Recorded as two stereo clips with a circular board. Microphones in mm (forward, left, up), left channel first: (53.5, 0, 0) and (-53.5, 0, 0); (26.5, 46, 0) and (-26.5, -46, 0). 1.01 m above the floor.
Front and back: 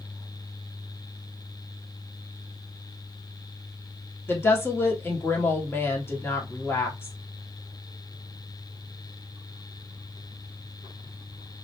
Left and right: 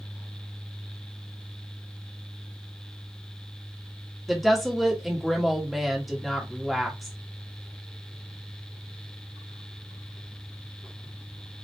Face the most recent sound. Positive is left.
turn(degrees=-30)